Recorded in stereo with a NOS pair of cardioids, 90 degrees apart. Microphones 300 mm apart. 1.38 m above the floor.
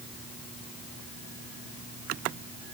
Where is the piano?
I don't hear a piano.